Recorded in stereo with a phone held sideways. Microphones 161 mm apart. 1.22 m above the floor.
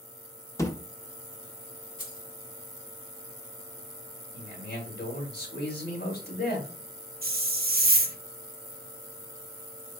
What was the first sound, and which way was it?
A thud, 20° left (ahead or behind).